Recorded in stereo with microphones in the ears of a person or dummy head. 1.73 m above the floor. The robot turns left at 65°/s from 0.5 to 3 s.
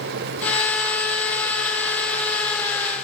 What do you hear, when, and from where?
Only background noise.